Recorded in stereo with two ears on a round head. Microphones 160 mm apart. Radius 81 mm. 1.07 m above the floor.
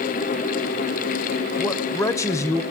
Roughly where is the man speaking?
Centre.